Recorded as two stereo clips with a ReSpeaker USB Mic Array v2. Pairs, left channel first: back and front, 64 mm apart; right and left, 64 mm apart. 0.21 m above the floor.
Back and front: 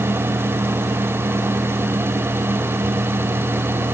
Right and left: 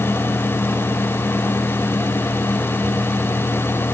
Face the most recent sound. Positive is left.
No sound to turn to.